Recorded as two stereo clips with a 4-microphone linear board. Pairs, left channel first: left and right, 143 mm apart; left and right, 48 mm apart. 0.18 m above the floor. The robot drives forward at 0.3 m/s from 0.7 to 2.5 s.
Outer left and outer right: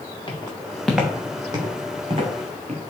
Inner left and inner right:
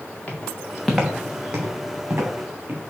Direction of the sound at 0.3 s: 35° left (ahead or behind).